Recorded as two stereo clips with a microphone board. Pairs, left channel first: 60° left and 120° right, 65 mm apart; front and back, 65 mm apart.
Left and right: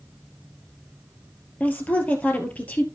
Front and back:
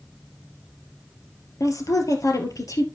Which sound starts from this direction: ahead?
A woman speaking, at 1.6 s.